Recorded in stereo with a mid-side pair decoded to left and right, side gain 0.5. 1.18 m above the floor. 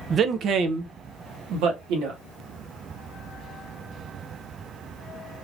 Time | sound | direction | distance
0.1 | a man speaking | 45° right | 0.6 m